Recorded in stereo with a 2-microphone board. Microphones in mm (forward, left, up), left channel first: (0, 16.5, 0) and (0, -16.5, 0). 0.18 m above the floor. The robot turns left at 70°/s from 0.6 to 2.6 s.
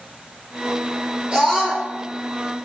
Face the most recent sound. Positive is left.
turn(degrees=125)